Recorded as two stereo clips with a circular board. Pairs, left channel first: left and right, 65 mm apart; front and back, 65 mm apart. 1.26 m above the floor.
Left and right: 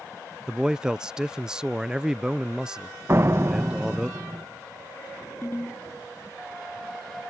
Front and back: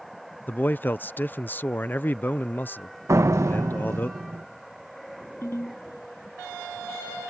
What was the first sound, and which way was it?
A man speaking, 20° right.